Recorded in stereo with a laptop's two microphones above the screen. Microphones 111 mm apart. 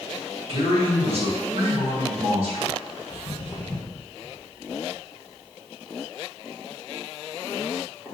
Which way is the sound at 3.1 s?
25° left (ahead or behind).